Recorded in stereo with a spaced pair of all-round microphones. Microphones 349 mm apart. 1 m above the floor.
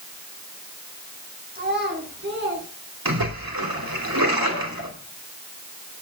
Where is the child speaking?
25° right (ahead or behind), 6.5 m; by 2.6 s 30° right (ahead or behind), 7 m.